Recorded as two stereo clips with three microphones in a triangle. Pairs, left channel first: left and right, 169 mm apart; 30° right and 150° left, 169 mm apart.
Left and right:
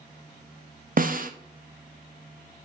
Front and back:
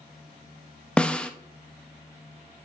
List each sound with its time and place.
1.0 s a snare drum: 115° right, 0.5 m